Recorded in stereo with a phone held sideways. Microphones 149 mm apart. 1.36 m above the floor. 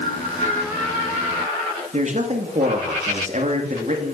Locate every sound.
1.9 s a man speaking: 50° right (ahead or behind), 2.5 m